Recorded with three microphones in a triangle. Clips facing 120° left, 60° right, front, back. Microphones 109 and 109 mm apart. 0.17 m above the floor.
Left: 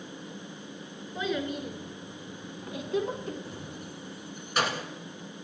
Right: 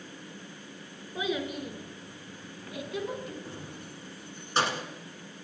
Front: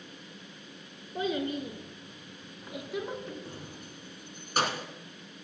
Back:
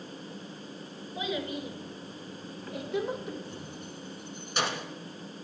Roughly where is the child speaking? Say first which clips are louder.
Left 1 dB, front 3 dB; ahead.